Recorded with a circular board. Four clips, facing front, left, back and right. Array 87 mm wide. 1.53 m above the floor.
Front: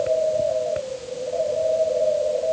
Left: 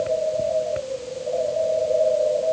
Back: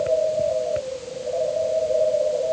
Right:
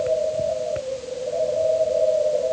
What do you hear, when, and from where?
Only background noise.